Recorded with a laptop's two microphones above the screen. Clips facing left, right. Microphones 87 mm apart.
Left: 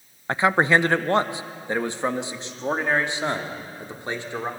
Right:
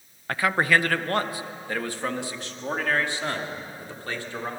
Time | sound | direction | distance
0.3 | a man speaking | 20° left (ahead or behind) | 0.6 m